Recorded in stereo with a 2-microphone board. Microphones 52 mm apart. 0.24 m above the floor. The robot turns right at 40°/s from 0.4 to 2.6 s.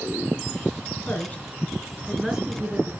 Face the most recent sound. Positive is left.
turn(degrees=-160)